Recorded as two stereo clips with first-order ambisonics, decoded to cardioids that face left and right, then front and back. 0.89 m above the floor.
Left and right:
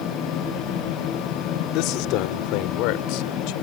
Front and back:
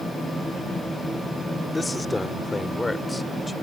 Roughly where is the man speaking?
Left.